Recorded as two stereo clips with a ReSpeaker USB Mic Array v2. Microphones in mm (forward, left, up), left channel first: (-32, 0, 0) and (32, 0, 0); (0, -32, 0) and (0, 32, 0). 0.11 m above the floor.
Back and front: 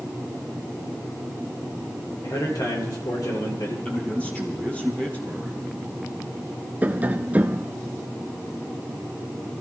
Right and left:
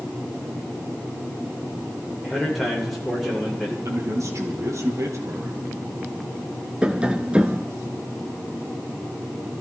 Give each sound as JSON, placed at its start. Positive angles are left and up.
{"t": 2.2, "sound": "a man speaking", "azimuth_deg": 180, "distance_m": 8.0}
{"t": 3.9, "sound": "a man speaking", "azimuth_deg": 110, "distance_m": 3.0}
{"t": 6.8, "sound": "tapping", "azimuth_deg": 35, "distance_m": 0.8}